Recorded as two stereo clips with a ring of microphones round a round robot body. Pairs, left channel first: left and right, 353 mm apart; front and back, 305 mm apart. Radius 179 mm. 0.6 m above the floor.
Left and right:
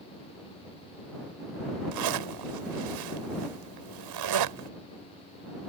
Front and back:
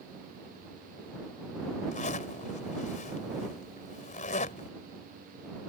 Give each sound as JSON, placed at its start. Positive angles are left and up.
{"t": 1.9, "sound": "a zipper", "azimuth_deg": -70}